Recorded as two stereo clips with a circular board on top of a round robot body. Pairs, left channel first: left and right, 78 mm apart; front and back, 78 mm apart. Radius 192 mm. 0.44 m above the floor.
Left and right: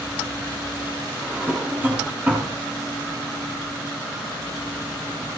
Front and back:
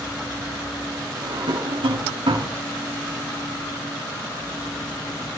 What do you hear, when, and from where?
1.2 s a drawer: 165° right, 3.5 m